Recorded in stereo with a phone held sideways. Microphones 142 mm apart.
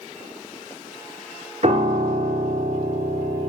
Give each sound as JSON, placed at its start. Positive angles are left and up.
{"t": 1.6, "sound": "a piano", "side_deg": -50, "distance_m": 0.8}